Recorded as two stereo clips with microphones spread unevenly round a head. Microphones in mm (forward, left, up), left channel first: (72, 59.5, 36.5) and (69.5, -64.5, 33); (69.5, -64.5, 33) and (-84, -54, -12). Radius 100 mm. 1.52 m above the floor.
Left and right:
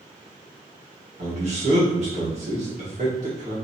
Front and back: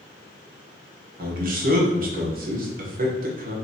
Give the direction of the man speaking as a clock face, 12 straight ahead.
5 o'clock.